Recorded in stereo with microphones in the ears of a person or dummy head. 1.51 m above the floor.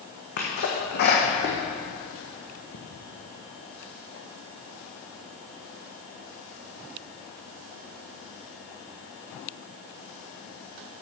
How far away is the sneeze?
About 1.2 m.